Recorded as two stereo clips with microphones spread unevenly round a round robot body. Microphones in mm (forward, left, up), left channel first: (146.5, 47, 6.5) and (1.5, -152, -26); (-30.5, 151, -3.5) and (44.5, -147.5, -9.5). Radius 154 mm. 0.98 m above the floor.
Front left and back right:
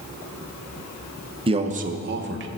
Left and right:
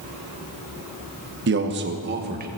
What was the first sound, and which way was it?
A man speaking, 85° right.